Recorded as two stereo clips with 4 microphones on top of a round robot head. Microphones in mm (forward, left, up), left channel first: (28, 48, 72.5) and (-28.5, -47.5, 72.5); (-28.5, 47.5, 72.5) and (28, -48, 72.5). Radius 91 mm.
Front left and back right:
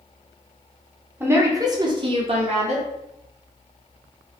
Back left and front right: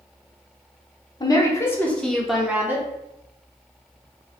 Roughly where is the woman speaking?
Behind.